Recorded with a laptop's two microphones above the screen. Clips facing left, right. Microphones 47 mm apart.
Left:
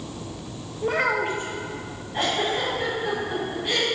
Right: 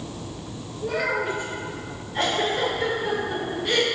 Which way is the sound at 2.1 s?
20° left (ahead or behind).